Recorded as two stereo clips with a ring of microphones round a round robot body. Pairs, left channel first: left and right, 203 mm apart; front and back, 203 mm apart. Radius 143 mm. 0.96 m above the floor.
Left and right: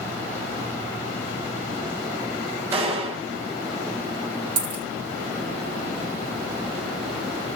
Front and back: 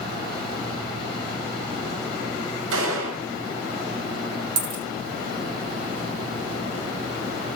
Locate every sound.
2.7 s a gunshot: 175° right, 5.5 m
4.6 s a dropped coin: 140° right, 1.4 m